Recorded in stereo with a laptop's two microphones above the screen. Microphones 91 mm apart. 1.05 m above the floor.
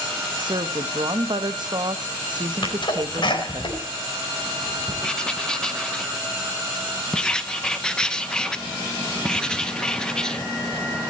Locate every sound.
0.4 s a woman speaking: 55° right (ahead or behind), 1.1 m
2.6 s a sneeze: 60° left (ahead or behind), 4.5 m
5.0 s writing: 10° left (ahead or behind), 1.0 m